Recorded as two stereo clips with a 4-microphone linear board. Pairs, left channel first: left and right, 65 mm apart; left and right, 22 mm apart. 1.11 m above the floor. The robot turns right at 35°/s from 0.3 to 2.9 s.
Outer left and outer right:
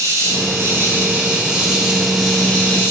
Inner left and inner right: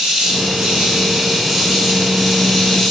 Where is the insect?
60° right, 0.8 m; by 2.9 s 30° left, 0.8 m.